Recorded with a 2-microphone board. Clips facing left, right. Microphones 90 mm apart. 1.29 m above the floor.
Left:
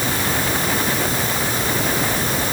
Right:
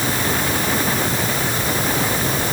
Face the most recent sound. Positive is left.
No sound to turn to.